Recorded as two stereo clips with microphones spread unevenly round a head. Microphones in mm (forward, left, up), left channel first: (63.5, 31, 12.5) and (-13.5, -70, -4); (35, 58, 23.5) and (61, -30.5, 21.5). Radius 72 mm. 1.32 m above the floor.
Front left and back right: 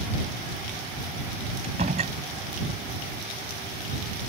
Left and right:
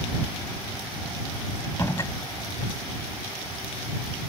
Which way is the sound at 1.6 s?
Straight behind.